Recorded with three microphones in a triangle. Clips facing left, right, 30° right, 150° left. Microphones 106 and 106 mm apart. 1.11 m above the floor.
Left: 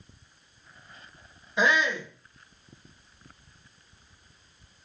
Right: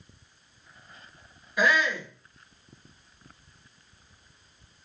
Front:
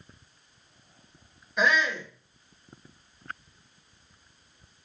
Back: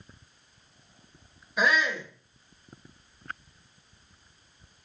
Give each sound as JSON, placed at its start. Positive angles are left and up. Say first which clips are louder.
{"t": 1.6, "sound": "a shout", "louder": "even, front 1 dB", "azimuth_deg": 70, "distance_m": 0.7}